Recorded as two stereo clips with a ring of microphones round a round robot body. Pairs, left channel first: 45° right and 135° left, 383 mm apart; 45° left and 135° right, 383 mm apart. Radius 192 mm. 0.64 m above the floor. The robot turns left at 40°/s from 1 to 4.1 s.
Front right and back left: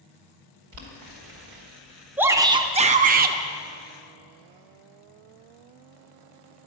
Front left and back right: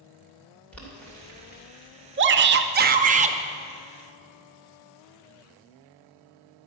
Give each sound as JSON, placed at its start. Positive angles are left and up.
{"t": 0.7, "sound": "boiling", "azimuth_deg": 130, "distance_m": 2.5}
{"t": 2.2, "sound": "a shout", "azimuth_deg": -145, "distance_m": 0.6}